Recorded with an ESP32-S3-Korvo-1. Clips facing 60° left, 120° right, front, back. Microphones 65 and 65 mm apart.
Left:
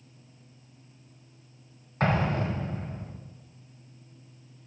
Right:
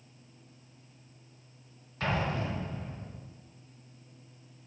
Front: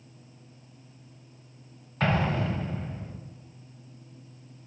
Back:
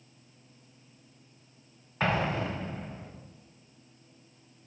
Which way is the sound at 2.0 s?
95° left.